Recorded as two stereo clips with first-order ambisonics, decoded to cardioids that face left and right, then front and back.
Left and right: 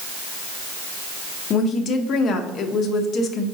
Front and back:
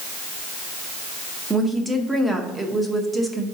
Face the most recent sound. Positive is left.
turn(degrees=105)